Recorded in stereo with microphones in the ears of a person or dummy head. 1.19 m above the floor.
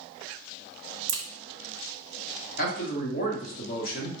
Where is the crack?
65° right (ahead or behind), 0.7 m.